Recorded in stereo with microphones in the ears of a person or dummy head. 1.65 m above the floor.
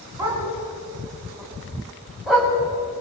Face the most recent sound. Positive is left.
turn(degrees=0)  # may be behind; listen again after turning